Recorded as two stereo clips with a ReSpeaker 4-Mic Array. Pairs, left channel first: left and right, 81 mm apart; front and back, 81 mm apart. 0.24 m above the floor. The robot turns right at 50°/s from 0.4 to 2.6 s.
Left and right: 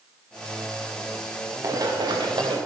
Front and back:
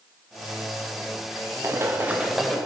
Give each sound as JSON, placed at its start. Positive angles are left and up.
{"t": 1.6, "sound": "running footsteps", "azimuth_deg": -130, "distance_m": 2.0}